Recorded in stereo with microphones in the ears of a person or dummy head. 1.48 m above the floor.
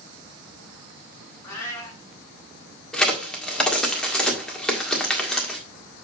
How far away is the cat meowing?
About 3 m.